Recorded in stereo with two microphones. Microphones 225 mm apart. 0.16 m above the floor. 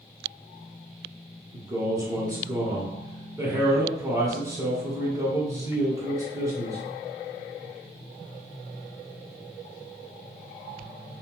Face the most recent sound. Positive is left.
turn(degrees=-15)  # may be behind; listen again after turning